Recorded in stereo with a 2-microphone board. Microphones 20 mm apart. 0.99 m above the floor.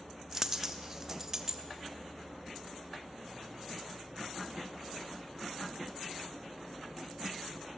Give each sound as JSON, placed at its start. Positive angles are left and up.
{"t": 0.3, "sound": "a dropped coin", "side_deg": -25, "distance_m": 0.8}